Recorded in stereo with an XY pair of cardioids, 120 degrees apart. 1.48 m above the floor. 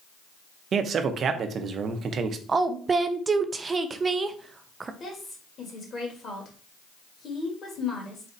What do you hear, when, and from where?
0.7 s a man speaking: 45° right, 0.7 m
2.5 s a woman speaking: 30° right, 0.6 m
5.0 s a woman speaking: 40° left, 1.8 m